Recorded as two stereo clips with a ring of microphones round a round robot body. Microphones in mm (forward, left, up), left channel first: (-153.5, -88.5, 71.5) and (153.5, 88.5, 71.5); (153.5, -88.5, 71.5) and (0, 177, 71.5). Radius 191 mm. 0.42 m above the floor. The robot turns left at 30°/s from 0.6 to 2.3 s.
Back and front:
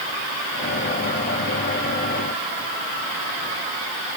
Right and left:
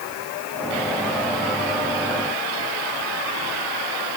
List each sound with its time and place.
Only background noise.